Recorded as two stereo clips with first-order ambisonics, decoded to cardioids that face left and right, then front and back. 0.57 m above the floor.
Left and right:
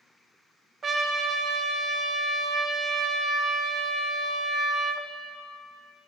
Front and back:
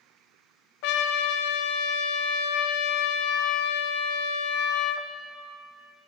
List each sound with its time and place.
0.8 s a trumpet: 20° right, 0.5 m